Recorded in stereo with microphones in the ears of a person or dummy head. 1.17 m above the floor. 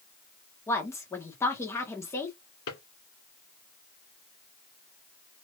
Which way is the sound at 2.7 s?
65° left (ahead or behind).